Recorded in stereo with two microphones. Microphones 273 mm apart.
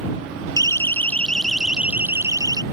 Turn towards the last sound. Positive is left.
turn(degrees=-15)  # may be behind; listen again after turning